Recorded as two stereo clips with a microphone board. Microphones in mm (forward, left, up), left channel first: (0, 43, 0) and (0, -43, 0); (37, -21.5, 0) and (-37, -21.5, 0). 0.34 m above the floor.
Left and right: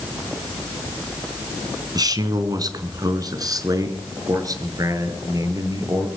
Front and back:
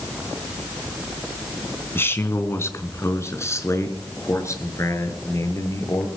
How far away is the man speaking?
About 3 m.